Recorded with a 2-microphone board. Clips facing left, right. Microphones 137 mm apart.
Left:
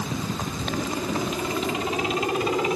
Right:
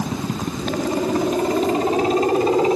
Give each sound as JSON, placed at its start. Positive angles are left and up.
{"t": 0.0, "sound": "a helicopter", "side_deg": -55}